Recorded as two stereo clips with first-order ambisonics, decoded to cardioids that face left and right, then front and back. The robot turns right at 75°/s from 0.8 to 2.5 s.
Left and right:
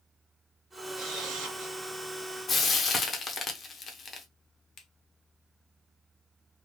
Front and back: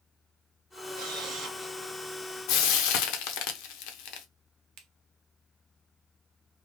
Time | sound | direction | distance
0.9 | a camera shutter | 150° right | 1.4 m
2.5 | frying | 20° left | 0.6 m
4.8 | a finger snap | 140° left | 0.7 m